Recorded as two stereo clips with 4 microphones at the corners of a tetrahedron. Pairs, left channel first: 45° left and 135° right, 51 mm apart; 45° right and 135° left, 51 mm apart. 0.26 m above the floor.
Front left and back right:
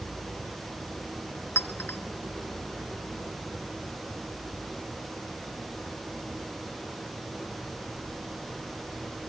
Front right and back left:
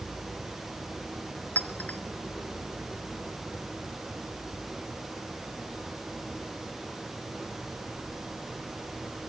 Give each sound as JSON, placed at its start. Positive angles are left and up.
{"t": 1.6, "sound": "a clink", "azimuth_deg": 10, "distance_m": 2.0}